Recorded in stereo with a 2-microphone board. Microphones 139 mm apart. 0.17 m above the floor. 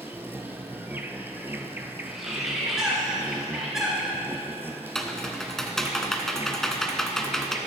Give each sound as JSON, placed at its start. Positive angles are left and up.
{"t": 0.0, "sound": "an insect", "side_deg": -15, "distance_m": 0.7}
{"t": 2.0, "sound": "a bird", "side_deg": -5, "distance_m": 2.5}
{"t": 5.0, "sound": "typing on a keyboard", "side_deg": 5, "distance_m": 0.8}